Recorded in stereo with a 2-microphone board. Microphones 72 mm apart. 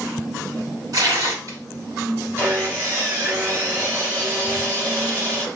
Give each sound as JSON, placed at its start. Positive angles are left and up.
{"t": 0.9, "sound": "tearing paper", "side_deg": -50, "distance_m": 3.0}
{"t": 2.4, "sound": "sawing", "side_deg": -30, "distance_m": 2.5}